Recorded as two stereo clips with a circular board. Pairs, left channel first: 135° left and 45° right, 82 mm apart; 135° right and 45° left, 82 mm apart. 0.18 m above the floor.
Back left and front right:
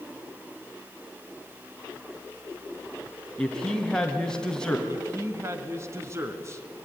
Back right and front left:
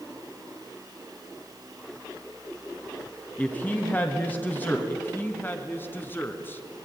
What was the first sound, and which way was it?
A woman speaking, 160° right.